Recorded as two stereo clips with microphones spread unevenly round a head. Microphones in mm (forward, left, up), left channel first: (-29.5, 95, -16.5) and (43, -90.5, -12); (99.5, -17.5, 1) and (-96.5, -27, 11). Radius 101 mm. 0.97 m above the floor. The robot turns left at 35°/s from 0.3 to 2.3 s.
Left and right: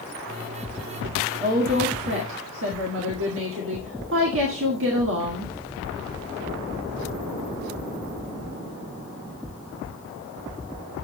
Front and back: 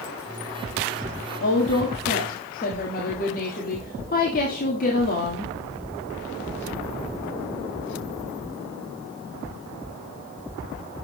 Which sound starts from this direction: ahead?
A woman speaking, at 1.4 s.